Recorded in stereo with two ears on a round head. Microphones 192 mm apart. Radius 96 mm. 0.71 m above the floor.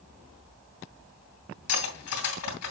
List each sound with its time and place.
1.7 s cutlery clinking: 85° left, 2.5 m